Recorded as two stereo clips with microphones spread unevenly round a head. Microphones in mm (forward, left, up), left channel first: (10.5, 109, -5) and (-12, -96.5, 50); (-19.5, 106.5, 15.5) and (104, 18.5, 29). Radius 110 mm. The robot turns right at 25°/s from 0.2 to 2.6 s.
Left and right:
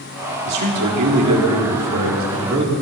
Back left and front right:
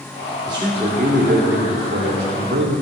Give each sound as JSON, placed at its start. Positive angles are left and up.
{"t": 0.5, "sound": "a man speaking", "azimuth_deg": -110, "distance_m": 2.0}